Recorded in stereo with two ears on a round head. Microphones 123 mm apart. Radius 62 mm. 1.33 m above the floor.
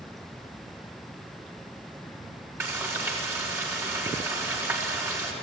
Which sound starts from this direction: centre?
Frying, at 2.6 s.